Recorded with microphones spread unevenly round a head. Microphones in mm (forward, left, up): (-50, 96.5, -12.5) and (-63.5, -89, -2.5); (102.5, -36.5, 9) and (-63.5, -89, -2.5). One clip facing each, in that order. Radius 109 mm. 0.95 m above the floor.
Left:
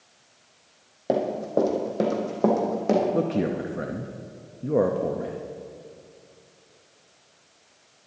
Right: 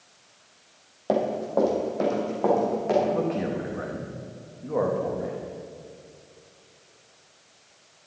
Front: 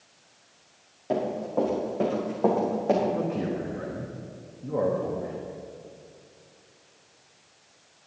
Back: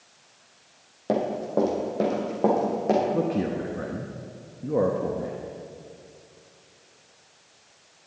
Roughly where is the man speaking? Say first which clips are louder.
Left 2 dB, back 3 dB; behind left.